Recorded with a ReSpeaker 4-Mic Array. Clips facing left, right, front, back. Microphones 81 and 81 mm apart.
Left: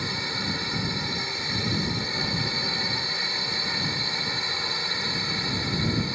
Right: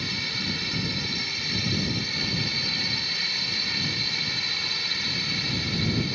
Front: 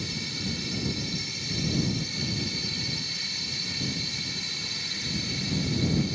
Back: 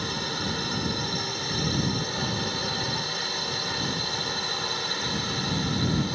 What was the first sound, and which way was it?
A drone, 150° left.